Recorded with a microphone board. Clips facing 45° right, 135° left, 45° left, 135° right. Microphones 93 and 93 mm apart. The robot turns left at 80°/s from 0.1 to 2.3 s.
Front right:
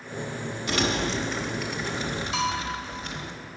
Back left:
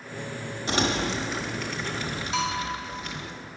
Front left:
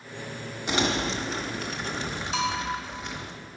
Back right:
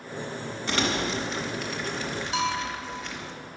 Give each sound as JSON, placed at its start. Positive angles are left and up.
{"t": 0.7, "sound": "crumpling", "azimuth_deg": 105, "distance_m": 1.0}
{"t": 2.3, "sound": "a bell", "azimuth_deg": -170, "distance_m": 3.0}